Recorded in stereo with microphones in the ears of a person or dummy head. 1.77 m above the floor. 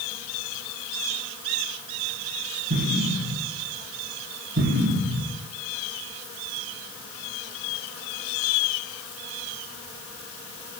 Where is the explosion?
65° right (ahead or behind), 4.5 m.